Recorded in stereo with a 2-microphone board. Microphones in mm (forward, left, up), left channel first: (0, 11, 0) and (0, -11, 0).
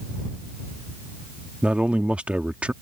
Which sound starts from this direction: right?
A man speaking, at 1.6 s.